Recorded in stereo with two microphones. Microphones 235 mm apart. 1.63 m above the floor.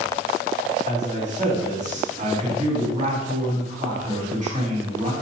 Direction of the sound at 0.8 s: 30° right (ahead or behind).